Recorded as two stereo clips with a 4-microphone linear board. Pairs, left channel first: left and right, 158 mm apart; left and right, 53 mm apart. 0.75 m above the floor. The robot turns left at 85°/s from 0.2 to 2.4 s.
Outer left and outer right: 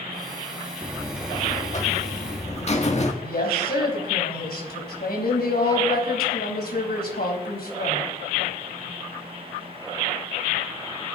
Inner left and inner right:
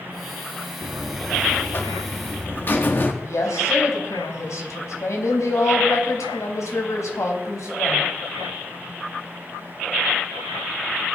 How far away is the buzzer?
About 1.6 m.